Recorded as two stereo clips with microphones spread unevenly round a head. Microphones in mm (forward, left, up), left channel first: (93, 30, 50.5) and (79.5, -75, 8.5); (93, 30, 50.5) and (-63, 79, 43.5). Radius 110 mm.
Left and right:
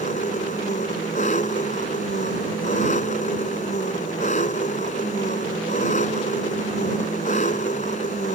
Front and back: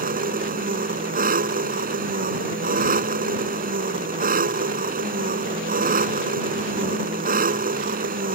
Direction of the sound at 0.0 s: 135° left.